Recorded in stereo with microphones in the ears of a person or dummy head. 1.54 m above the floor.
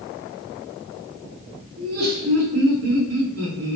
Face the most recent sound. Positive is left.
turn(degrees=-85)